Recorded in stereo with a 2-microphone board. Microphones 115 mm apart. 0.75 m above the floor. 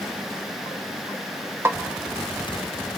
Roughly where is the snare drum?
Right.